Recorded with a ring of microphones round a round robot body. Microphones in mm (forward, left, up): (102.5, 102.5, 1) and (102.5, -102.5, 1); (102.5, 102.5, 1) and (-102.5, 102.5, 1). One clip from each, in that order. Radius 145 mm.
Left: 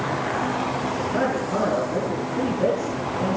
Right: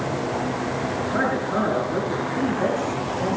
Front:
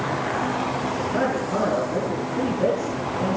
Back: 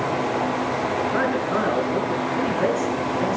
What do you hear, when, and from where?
1.0 s a man speaking: 165° right, 8 m